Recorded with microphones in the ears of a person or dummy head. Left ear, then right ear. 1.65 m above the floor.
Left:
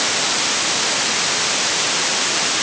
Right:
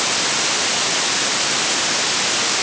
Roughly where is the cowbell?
I don't hear a cowbell.